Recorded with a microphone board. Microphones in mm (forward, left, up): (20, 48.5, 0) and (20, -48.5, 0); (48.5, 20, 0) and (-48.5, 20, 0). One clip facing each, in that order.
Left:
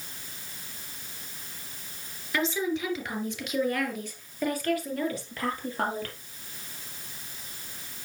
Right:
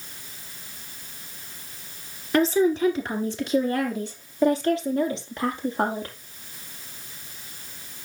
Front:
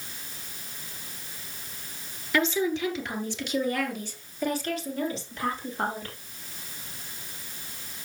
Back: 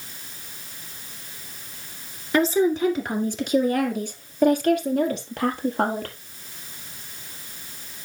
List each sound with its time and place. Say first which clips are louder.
2.3 s a woman speaking: right 9 dB, back 6 dB; 130° right, 2 m; by 6.2 s 160° right, 3.5 m